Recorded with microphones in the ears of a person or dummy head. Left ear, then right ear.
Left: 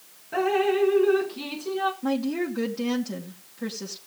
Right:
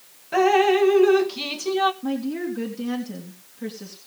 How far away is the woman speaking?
About 2.5 m.